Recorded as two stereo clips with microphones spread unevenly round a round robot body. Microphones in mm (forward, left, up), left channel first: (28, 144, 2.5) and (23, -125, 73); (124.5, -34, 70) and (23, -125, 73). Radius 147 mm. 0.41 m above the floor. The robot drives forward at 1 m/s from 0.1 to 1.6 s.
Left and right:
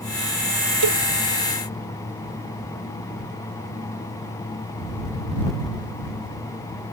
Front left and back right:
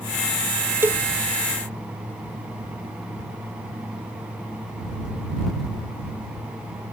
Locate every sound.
0.8 s a cowbell: 65° right